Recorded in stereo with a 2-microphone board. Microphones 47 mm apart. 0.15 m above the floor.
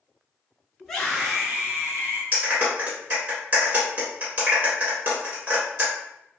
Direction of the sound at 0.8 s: 10° left (ahead or behind).